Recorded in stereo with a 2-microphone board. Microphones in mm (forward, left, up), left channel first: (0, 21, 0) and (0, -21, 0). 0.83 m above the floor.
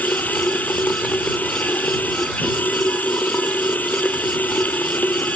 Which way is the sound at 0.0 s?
40° left (ahead or behind).